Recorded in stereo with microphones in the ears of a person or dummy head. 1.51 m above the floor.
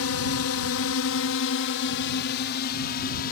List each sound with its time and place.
0.0 s a drone: 70° left (ahead or behind); by 3.3 s 45° left (ahead or behind)